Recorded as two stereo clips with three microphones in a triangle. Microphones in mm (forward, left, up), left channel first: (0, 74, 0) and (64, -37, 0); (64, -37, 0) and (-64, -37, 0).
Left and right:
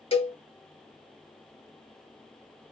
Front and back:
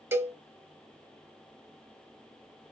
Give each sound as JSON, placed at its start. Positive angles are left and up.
{"t": 0.1, "sound": "a cowbell", "azimuth_deg": 115, "distance_m": 0.8}